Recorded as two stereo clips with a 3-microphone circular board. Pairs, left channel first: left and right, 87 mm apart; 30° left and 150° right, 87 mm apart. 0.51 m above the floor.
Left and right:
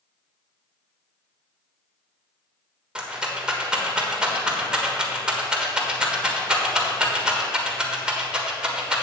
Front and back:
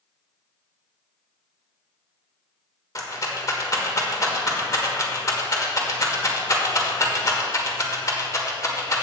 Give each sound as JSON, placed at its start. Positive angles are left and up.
{"t": 3.0, "sound": "a rattle", "azimuth_deg": -10, "distance_m": 1.3}